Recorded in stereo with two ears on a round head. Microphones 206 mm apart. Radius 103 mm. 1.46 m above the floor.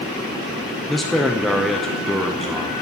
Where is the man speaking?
Centre (ahead or behind), 0.6 m.